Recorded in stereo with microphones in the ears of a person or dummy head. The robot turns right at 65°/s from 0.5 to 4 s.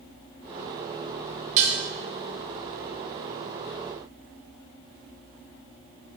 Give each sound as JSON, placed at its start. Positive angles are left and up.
{"t": 1.6, "sound": "dishes clattering", "side_deg": -45, "distance_m": 0.8}